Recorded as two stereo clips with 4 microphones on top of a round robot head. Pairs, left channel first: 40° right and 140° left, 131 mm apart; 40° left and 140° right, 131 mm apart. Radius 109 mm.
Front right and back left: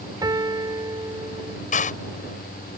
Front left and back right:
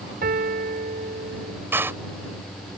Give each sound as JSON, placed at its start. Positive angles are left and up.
{"t": 0.2, "sound": "a piano", "azimuth_deg": -155}
{"t": 1.7, "sound": "a door slam", "azimuth_deg": -70}